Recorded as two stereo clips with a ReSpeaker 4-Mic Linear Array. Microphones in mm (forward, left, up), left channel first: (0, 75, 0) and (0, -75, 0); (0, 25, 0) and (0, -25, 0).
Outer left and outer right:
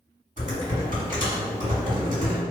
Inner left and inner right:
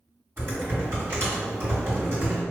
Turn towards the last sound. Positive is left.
turn(degrees=-55)  # may be behind; listen again after turning